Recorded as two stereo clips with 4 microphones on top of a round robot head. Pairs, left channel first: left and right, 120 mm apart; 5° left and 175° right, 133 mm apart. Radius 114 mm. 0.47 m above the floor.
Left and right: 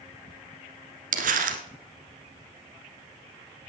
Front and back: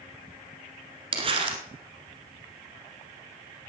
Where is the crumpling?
115° right, 1.5 m.